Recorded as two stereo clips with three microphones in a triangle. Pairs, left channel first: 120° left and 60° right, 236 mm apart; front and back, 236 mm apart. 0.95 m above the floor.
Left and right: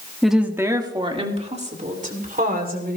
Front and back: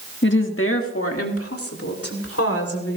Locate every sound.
0.2 s a woman speaking: 30° left, 1.3 m; by 3.0 s 10° right, 3.5 m